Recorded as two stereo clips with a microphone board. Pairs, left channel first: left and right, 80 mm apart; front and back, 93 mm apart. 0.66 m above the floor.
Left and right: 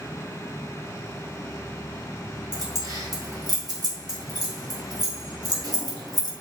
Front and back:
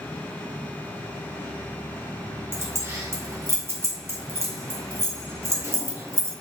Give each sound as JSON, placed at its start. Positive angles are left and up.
{"t": 2.5, "sound": "keys jangling", "azimuth_deg": -120, "distance_m": 0.9}